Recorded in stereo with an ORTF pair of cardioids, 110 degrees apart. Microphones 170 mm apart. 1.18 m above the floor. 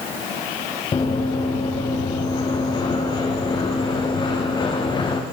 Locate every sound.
0.9 s running footsteps: 30° left, 5 m